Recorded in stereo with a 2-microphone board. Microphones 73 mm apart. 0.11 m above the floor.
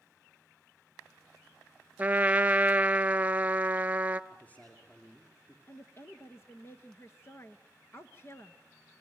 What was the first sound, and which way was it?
A trumpet, 20° right (ahead or behind).